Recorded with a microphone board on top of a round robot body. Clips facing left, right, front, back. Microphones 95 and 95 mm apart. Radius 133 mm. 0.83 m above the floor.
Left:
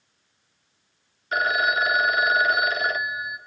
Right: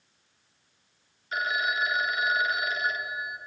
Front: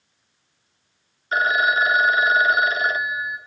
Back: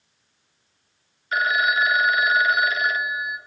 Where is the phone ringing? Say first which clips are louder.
Left 6 dB, front 2 dB; 60° left, 0.6 m.